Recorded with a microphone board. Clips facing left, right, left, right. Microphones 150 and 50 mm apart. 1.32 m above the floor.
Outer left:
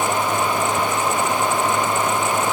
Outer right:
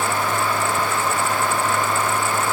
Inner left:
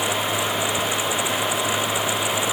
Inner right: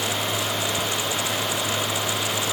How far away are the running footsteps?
I don't hear running footsteps.